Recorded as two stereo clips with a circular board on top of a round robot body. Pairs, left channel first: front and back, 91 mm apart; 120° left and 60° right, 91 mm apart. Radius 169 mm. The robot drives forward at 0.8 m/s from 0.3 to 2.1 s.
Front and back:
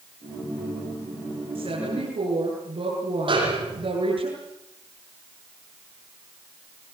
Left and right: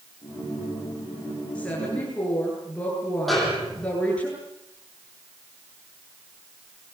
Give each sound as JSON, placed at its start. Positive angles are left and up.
{"t": 1.6, "sound": "a woman speaking", "azimuth_deg": -160, "distance_m": 9.0}
{"t": 3.3, "sound": "a snare drum", "azimuth_deg": -150, "distance_m": 9.5}